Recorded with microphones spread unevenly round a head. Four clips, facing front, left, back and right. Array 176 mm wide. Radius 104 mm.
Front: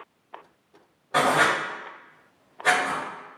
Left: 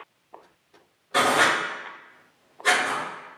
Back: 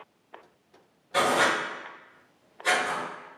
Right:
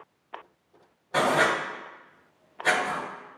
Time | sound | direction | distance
1.1 | writing | 80° right | 1.3 m